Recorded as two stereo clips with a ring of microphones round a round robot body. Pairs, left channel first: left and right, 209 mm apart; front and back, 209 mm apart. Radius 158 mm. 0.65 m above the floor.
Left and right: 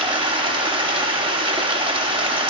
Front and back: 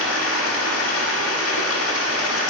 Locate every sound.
0.0 s running water: 25° right, 0.7 m